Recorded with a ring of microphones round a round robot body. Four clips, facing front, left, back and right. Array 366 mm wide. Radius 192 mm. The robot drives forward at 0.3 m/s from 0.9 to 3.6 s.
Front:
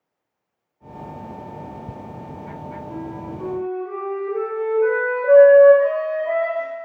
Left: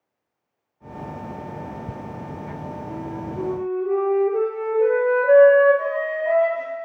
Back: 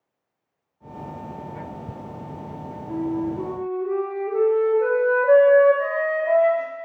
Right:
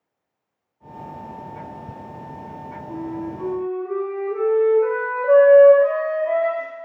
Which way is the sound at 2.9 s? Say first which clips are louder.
Right 5 dB, back 9 dB; 105° left.